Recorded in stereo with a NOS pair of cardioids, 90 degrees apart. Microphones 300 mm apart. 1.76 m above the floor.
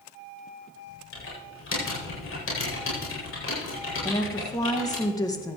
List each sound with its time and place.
1.1 s typing on a keyboard: 45° left, 8 m
4.0 s a woman speaking: 10° left, 2.5 m